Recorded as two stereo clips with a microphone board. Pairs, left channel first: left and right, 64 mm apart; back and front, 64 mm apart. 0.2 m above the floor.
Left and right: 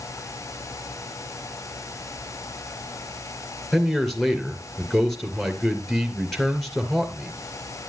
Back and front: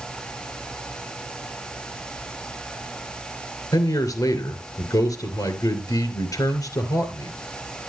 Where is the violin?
I don't hear a violin.